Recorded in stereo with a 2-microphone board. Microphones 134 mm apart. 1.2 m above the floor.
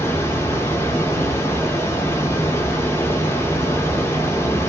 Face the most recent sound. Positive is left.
turn(degrees=20)  # may be behind; listen again after turning